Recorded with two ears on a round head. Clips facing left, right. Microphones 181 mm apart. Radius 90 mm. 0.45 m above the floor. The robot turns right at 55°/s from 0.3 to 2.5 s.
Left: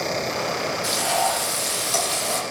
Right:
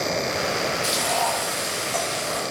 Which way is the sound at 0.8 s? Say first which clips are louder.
Left 1 dB; 5° right.